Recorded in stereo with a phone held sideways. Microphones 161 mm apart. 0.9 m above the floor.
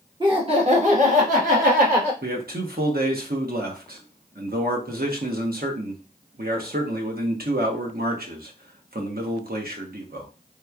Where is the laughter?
25° right (ahead or behind), 0.8 m; by 2.1 s 65° right (ahead or behind), 1.8 m.